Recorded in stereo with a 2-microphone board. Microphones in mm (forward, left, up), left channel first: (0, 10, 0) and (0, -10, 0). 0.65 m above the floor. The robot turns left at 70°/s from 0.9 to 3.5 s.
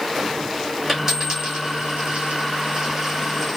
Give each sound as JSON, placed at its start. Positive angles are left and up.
{"t": 0.9, "sound": "a dropped coin", "side_deg": -5, "distance_m": 2.5}